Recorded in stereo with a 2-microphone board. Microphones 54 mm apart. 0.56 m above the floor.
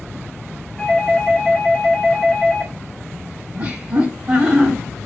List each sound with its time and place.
0.8 s a doorbell: 10° left (ahead or behind), 1.7 m
3.5 s laughter: 35° right (ahead or behind), 1.0 m